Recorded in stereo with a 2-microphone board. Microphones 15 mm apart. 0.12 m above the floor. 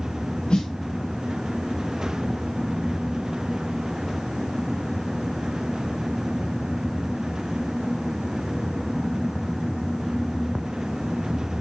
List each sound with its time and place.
0.5 s a snare drum: 80° left, 9.5 m